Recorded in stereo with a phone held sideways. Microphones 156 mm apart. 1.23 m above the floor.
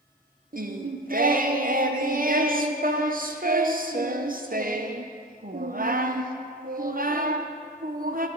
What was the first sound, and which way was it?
Singing, 65° right (ahead or behind).